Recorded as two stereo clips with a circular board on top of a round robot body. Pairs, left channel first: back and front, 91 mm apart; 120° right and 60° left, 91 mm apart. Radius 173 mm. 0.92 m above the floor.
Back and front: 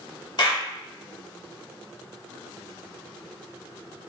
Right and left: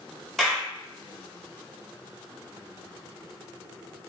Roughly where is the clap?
Behind left.